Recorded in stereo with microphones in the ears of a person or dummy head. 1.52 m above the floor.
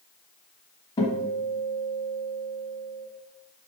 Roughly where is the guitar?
Left.